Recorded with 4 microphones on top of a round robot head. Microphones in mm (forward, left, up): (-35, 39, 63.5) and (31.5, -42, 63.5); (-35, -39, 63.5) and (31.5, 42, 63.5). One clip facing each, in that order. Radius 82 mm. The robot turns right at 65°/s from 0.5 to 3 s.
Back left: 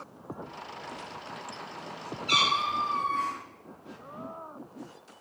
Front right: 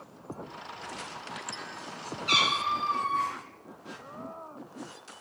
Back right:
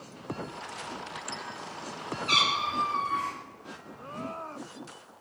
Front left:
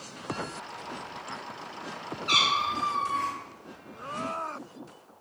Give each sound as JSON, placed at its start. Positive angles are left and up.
{"t": 2.3, "sound": "a cat meowing", "azimuth_deg": -35, "distance_m": 1.8}